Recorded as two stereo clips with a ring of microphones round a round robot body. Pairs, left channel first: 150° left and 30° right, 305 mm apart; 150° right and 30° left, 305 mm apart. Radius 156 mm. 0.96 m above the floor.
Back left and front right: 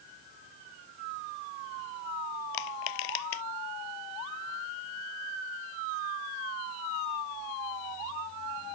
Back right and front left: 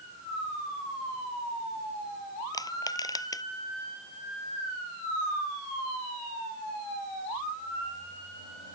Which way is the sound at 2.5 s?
130° left.